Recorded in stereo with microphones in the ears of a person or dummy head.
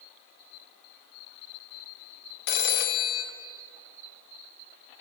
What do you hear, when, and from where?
2.5 s a phone ringing: 60° left (ahead or behind), 0.7 m